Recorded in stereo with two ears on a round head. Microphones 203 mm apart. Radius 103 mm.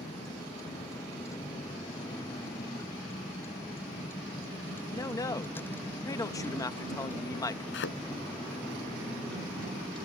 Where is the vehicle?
15° left (ahead or behind); by 10.1 s 5° left (ahead or behind).